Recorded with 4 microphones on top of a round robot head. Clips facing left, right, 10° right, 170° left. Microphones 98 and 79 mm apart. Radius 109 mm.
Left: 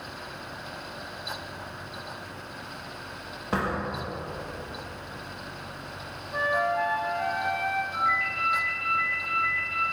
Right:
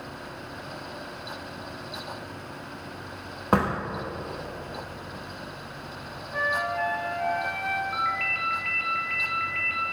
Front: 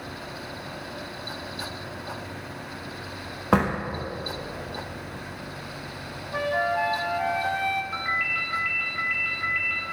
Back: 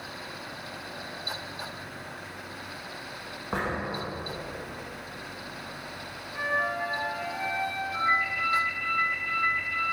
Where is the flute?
15° left, 0.7 m.